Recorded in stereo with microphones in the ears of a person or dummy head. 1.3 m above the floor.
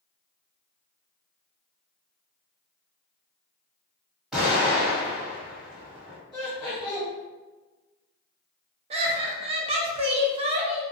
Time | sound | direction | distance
4.3 | an explosion | centre (ahead or behind) | 1.8 m
6.3 | laughter | 10° left (ahead or behind) | 1.7 m
8.9 | laughter | 35° right (ahead or behind) | 0.5 m